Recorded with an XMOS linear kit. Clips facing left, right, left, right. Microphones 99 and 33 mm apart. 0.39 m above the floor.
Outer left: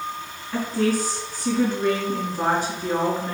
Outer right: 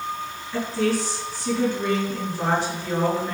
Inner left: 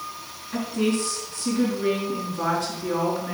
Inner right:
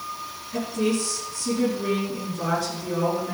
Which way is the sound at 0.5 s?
50° left (ahead or behind).